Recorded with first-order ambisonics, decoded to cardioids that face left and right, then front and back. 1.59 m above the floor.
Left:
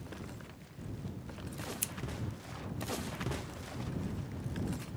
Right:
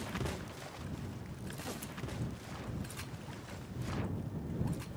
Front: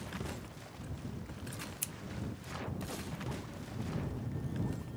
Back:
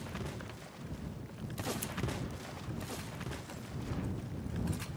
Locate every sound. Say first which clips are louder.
1.8 s scissors: left 5 dB, back 2 dB; 70° left